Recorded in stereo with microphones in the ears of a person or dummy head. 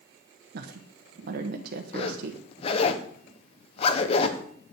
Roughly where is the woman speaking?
Right.